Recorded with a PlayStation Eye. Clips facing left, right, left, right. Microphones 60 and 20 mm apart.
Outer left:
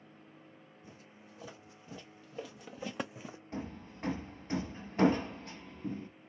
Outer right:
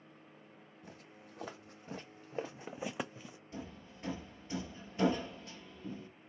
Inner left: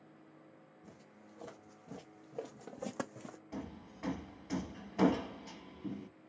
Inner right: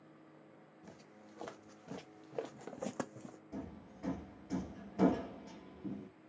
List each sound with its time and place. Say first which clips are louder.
0.8 s footsteps: outer right 3 dB, inner right 2 dB; 65° right (ahead or behind), 2.5 m; by 3.4 s 40° left (ahead or behind), 0.6 m
3.5 s hammering: outer left 5 dB, inner left 1 dB; 40° left (ahead or behind), 1.4 m